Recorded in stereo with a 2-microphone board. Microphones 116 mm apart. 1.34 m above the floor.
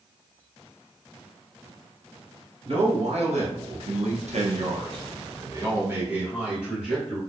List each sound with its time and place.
2.6 s a man speaking: 60° right (ahead or behind), 1.7 m; by 7.2 s centre (ahead or behind), 2 m